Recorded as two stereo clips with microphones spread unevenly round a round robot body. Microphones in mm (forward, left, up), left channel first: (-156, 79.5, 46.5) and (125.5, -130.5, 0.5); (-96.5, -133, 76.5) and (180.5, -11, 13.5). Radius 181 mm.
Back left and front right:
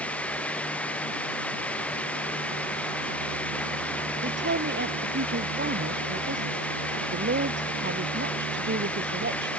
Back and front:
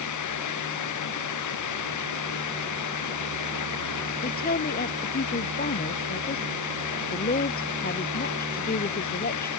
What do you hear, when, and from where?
0.0 s running water: 130° right
4.2 s a woman speaking: 95° right